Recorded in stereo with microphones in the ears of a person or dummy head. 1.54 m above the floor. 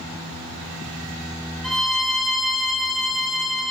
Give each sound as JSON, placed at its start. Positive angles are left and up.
{"t": 1.6, "sound": "a violin", "side_deg": 0, "distance_m": 1.4}